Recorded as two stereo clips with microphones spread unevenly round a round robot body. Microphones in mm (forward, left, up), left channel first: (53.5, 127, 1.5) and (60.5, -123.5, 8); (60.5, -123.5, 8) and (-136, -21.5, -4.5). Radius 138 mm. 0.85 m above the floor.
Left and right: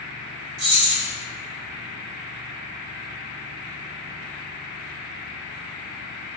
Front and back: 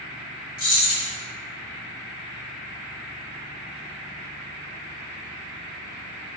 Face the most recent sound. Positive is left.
turn(degrees=-80)